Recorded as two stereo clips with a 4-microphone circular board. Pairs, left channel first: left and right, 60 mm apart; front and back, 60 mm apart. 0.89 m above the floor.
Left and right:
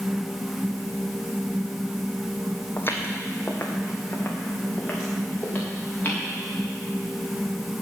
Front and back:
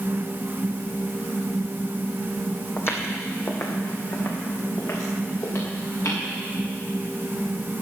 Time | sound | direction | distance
2.8 | footsteps | 40° left | 1.6 m